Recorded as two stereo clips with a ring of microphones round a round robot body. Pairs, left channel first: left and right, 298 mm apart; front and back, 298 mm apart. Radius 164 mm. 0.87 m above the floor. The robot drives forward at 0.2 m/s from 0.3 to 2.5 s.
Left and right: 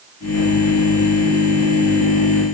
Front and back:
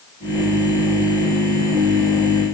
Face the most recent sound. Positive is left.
No sound to turn to.